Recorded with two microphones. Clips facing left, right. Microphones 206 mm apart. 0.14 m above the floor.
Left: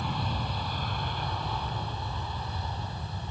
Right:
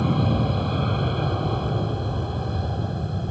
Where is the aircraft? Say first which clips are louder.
Right 12 dB; 60° right (ahead or behind); by 3.3 s 55° right (ahead or behind).